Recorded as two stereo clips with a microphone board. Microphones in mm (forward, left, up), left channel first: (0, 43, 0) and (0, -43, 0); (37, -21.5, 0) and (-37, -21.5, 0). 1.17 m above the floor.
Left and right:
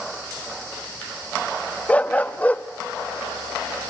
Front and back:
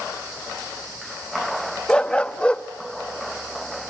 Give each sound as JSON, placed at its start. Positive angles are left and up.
{"t": 1.9, "sound": "a dog barking", "azimuth_deg": 50, "distance_m": 0.5}